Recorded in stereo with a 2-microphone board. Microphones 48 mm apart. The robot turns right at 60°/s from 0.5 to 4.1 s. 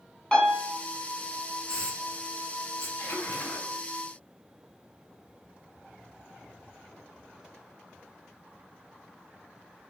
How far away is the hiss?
About 1.0 m.